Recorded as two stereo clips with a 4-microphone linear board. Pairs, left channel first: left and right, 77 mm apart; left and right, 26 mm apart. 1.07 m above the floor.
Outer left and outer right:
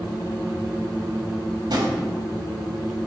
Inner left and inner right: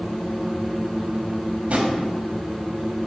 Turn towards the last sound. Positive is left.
turn(degrees=-60)  # may be behind; listen again after turning